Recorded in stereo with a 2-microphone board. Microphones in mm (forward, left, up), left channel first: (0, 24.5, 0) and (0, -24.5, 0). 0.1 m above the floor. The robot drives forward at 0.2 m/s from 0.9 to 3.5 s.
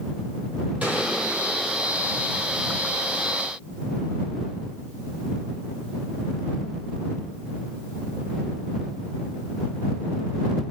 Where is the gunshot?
35° right (ahead or behind), 4 m; by 2.0 s 30° right (ahead or behind), 4 m.